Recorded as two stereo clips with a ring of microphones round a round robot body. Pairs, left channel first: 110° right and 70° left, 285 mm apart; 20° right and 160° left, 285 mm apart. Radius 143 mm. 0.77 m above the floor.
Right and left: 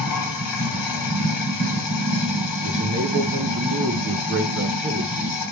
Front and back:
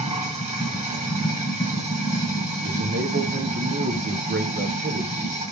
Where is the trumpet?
No trumpet in this recording.